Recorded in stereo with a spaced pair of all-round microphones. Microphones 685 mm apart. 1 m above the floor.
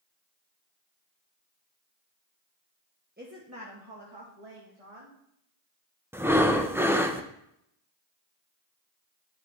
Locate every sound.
3.2 s a woman speaking: 15° right (ahead or behind), 1.2 m; by 5.2 s 55° right (ahead or behind), 1.7 m
6.1 s breathing: 5° right (ahead or behind), 0.5 m